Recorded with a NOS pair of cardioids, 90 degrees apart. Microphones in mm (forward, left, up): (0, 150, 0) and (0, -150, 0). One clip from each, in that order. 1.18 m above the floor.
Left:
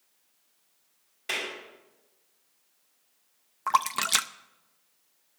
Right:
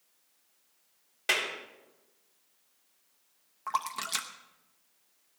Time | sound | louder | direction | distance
1.3 | a clap | right 3 dB | 70° right | 4.5 m
3.7 | a splash | left 8 dB | 40° left | 0.7 m